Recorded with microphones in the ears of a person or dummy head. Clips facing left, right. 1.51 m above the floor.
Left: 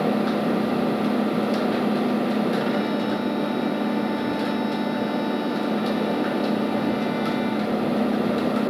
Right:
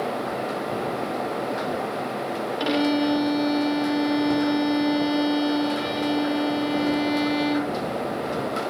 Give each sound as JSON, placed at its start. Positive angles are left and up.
{"t": 0.0, "sound": "an engine running", "side_deg": 75}
{"t": 2.6, "sound": "a violin", "side_deg": -45}